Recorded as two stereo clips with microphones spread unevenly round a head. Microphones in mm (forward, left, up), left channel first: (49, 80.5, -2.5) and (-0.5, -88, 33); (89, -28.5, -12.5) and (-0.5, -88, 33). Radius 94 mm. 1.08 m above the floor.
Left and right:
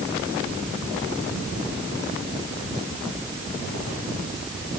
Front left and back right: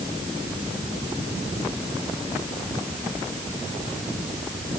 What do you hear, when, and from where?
Only background noise.